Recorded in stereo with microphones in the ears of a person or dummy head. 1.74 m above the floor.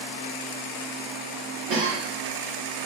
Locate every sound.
1.7 s a cough: 40° right (ahead or behind), 1.7 m